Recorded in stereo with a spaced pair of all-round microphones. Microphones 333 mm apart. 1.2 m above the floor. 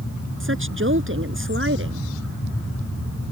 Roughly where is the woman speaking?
Right.